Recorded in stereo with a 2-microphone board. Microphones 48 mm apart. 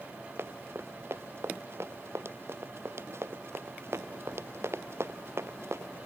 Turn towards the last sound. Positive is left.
turn(degrees=-65)  # may be behind; listen again after turning